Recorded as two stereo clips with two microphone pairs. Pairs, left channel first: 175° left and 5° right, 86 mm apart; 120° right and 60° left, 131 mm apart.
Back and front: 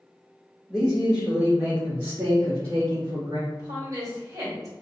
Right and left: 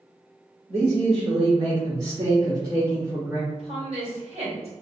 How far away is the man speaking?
About 1.5 m.